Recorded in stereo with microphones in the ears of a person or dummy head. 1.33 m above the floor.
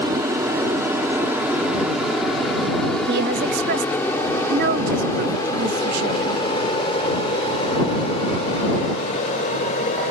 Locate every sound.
0.0 s an aircraft: 20° right (ahead or behind); by 10.1 s 40° left (ahead or behind)
3.1 s a woman speaking: 60° right (ahead or behind)